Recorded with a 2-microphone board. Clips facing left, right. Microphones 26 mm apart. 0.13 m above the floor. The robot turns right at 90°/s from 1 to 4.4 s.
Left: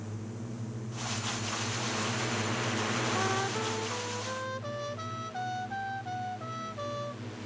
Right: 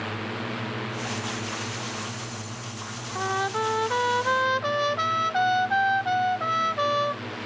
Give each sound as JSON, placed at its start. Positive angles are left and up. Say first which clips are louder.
{"t": 0.0, "sound": "a drone", "louder": "right 11 dB", "azimuth_deg": -85}
{"t": 3.1, "sound": "a trumpet", "louder": "right 4 dB", "azimuth_deg": -175}